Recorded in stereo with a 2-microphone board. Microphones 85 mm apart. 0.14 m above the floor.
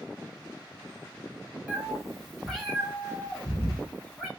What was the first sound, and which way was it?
A cat meowing, 15° right (ahead or behind).